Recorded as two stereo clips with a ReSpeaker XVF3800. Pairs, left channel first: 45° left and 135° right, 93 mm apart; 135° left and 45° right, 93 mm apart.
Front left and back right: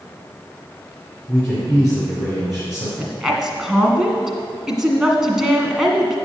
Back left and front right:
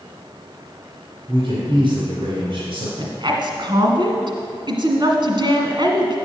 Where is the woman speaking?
50° right, 1.9 m.